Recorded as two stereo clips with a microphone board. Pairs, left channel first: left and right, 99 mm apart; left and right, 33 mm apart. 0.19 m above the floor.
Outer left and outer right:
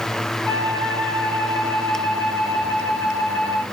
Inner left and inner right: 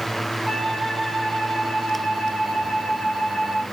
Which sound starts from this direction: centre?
A flute, at 0.5 s.